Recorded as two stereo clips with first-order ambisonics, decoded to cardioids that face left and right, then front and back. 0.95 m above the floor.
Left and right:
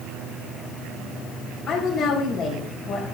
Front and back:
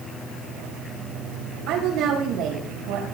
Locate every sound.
1.7 s a woman speaking: 165° left, 4.5 m